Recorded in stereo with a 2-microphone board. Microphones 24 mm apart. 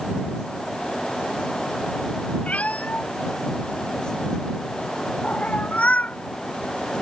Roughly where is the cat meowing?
Left.